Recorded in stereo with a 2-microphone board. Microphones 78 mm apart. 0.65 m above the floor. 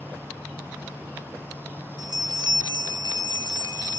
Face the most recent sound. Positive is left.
turn(degrees=-65)  # may be behind; listen again after turning